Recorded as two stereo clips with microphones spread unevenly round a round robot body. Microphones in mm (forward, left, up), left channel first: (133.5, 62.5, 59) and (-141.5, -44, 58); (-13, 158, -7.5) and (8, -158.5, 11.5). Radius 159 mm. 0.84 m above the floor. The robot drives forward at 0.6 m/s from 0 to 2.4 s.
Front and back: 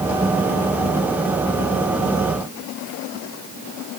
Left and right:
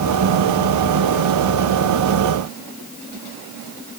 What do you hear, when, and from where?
Only background noise.